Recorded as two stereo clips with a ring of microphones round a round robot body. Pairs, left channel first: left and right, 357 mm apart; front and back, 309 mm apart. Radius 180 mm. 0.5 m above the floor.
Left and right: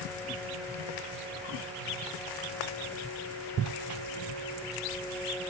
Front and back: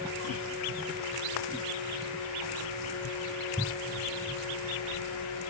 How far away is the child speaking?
I don't hear a child speaking.